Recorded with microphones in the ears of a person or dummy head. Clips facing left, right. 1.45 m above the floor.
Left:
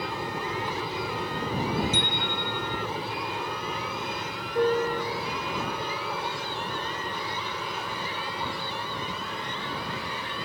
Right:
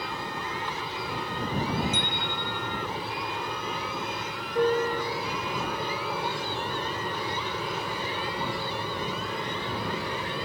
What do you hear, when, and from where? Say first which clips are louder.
0.0 s an aircraft: left 3 dB; 5° left (ahead or behind); by 10.4 s 20° right (ahead or behind)
1.9 s a bicycle bell: left 2 dB; 75° left (ahead or behind)